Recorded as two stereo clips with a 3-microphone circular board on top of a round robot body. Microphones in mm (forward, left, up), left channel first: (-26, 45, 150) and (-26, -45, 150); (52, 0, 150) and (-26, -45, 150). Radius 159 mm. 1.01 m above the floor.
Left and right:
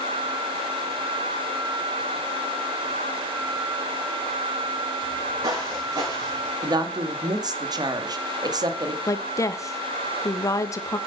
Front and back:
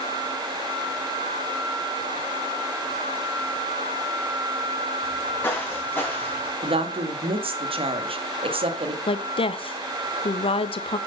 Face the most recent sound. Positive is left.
turn(degrees=35)